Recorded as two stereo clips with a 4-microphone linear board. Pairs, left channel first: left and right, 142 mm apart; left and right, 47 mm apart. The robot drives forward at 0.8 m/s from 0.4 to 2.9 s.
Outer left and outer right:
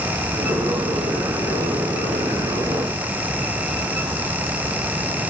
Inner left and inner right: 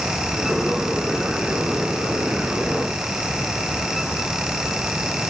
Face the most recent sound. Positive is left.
No sound to turn to.